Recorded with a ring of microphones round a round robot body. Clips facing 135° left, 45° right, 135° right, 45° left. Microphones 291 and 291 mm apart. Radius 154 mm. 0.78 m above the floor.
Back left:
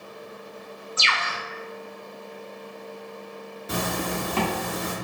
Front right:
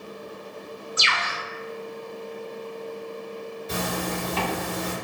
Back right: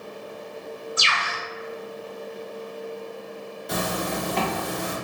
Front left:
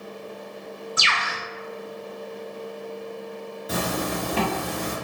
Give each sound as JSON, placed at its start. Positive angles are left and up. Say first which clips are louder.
{"t": 1.0, "sound": "a bird", "louder": "front right 1 dB, even", "azimuth_deg": 30, "distance_m": 0.6}
{"t": 3.7, "sound": "a zipper", "louder": "back left 1 dB, front left 1 dB", "azimuth_deg": 130, "distance_m": 1.5}